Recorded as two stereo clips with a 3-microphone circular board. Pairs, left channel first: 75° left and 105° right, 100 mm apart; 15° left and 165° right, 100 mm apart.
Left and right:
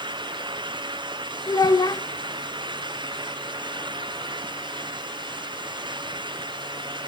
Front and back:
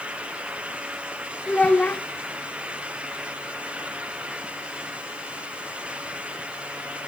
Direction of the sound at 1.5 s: 85° left.